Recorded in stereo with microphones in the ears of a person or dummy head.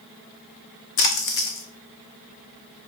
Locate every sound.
1.0 s a splash: 50° left (ahead or behind), 0.7 m